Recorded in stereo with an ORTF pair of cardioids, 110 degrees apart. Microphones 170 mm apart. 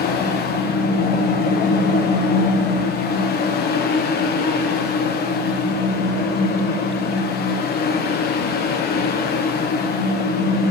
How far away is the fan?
About 1.2 m.